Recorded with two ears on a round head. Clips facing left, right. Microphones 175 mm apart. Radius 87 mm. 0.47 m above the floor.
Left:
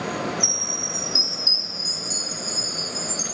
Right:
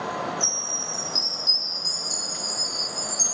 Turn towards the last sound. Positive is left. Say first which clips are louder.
# left 3 dB
turn(degrees=30)  # may be behind; listen again after turning